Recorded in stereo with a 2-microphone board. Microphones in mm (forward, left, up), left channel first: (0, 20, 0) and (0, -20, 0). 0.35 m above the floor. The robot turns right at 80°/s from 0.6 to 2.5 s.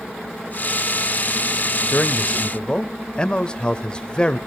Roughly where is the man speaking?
Left.